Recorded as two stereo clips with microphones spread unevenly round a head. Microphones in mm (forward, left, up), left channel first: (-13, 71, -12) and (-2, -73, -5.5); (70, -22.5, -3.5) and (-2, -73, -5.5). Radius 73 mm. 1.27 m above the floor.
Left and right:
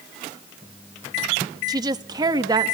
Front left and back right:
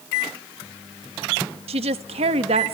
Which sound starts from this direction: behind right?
A woman speaking, at 1.7 s.